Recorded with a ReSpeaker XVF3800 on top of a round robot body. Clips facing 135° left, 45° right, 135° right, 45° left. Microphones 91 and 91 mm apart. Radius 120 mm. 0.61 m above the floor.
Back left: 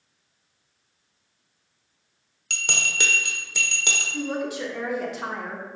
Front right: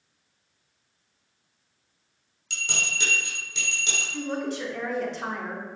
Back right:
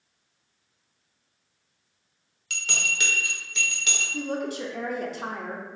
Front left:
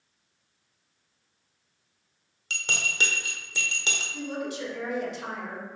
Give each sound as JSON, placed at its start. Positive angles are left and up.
{"t": 2.5, "sound": "a bell", "azimuth_deg": 105, "distance_m": 0.9}
{"t": 4.1, "sound": "a woman speaking", "azimuth_deg": -145, "distance_m": 1.1}